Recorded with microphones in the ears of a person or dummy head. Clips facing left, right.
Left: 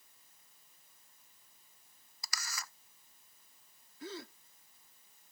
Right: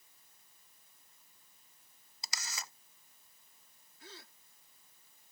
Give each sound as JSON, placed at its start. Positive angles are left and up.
{"t": 2.2, "sound": "a camera shutter", "side_deg": -20}
{"t": 4.0, "sound": "a gasp", "side_deg": 70}